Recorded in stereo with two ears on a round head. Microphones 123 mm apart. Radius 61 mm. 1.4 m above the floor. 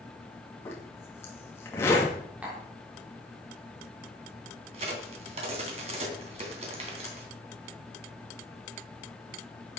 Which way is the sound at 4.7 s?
50° right (ahead or behind).